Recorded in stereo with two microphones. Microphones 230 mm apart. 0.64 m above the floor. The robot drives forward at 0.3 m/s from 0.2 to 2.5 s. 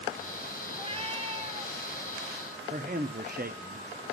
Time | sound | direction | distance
0.7 | a cat meowing | 25° right (ahead or behind) | 0.8 m
2.7 | a man speaking | 40° right (ahead or behind) | 0.6 m